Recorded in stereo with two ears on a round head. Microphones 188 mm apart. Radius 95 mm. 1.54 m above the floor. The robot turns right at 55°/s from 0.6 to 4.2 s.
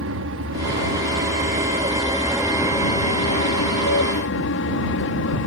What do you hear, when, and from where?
0.0 s an aircraft: 70° right (ahead or behind); by 5.5 s 70° left (ahead or behind)